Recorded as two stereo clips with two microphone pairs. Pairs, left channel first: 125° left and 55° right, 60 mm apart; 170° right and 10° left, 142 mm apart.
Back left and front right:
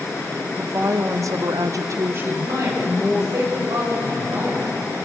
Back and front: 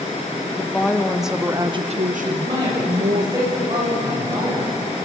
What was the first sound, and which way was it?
A woman speaking, 95° right.